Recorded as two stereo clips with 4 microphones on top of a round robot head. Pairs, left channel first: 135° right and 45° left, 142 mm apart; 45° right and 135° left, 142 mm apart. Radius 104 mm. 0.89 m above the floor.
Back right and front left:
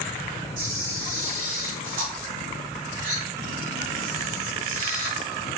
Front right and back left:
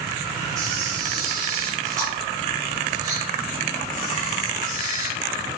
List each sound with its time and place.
0.6 s a camera shutter: 70° left, 5.5 m